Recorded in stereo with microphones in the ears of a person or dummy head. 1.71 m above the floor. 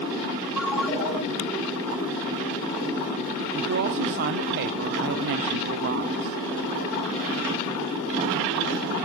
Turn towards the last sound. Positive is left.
turn(degrees=-55)  # may be behind; listen again after turning